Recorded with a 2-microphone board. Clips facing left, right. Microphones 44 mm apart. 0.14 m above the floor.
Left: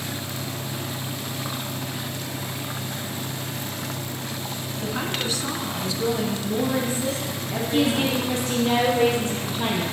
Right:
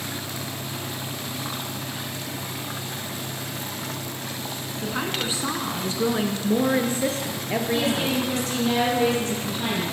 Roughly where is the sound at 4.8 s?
Centre.